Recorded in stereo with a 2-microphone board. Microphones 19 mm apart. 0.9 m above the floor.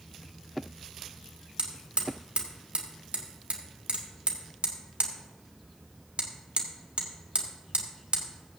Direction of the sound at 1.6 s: 65° right (ahead or behind).